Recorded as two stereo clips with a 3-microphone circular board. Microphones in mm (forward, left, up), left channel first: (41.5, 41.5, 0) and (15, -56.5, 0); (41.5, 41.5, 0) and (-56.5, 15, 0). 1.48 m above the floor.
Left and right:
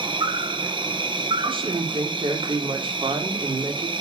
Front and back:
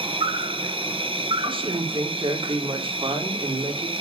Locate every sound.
0.0 s an insect: 140° right, 1.8 m
1.4 s a woman speaking: 135° right, 4.5 m